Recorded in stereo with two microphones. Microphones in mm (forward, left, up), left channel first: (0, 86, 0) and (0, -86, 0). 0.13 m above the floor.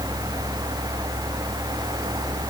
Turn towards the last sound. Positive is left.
No sound to turn to.